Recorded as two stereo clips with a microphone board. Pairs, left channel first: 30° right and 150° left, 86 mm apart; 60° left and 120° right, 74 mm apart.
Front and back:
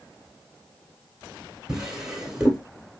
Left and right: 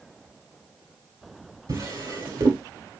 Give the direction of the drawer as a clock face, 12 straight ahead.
4 o'clock.